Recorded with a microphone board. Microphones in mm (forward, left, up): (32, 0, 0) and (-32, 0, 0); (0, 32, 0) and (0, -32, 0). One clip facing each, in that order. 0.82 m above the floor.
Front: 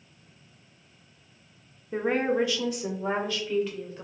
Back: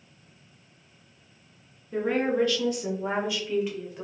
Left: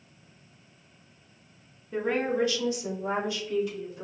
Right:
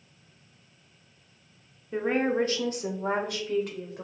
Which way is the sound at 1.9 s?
20° right.